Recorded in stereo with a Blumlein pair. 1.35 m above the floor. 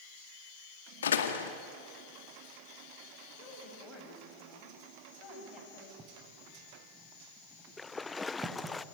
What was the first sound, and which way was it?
A door slam, 65° left.